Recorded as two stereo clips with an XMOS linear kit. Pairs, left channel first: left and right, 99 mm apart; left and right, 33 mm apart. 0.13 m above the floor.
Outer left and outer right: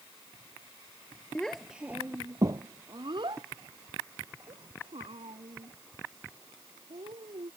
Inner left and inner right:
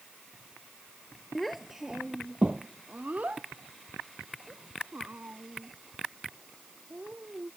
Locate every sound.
1.4 s a child speaking: 10° left (ahead or behind); by 7.5 s 75° right (ahead or behind)